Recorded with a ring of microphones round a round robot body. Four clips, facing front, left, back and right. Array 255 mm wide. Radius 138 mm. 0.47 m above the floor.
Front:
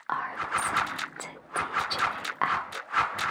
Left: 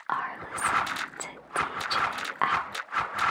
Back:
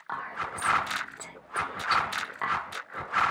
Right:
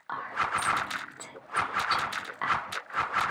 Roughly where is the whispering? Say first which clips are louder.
Right 1 dB, front 5 dB; ahead left.